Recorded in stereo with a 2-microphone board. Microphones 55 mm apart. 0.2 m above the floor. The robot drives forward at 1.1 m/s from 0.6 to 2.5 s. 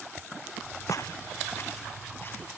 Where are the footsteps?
75° left (ahead or behind), 0.6 m; by 2.6 s 40° left (ahead or behind), 4.5 m.